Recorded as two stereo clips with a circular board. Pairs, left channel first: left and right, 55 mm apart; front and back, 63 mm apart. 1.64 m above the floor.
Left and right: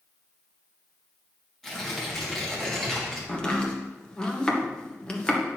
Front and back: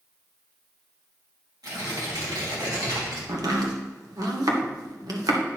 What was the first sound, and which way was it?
Tearing paper, 170° left.